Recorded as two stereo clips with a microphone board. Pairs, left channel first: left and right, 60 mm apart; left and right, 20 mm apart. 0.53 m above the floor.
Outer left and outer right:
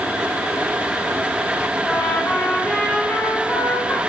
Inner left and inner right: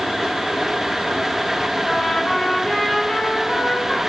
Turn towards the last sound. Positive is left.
turn(degrees=40)  # may be behind; listen again after turning